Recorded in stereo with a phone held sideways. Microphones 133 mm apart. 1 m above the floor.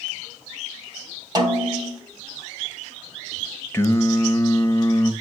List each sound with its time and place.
1.4 s a snare drum: 30° right (ahead or behind), 1.2 m
3.7 s singing: 20° left (ahead or behind), 0.7 m